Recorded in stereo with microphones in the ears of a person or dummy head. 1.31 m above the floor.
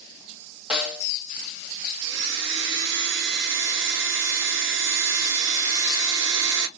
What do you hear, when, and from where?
0.7 s a snare drum: 5° right (ahead or behind), 0.7 m
2.0 s a blender: 65° right (ahead or behind), 0.6 m